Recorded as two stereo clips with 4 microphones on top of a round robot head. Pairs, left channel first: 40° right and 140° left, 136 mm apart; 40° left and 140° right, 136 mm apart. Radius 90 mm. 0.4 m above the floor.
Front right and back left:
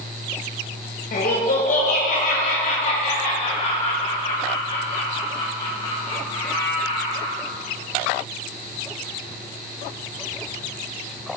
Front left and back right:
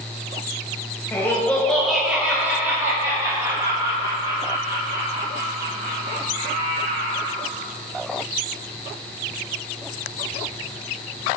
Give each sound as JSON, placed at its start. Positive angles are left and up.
{"t": 1.1, "sound": "laughter", "azimuth_deg": -35, "distance_m": 2.0}